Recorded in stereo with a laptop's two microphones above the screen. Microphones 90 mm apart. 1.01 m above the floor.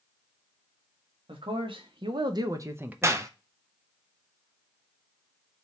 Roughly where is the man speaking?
Right.